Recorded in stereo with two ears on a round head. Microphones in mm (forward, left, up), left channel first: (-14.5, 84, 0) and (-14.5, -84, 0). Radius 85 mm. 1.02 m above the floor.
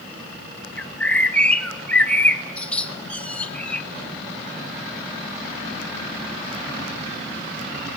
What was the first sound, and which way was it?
A bird, 5° left (ahead or behind).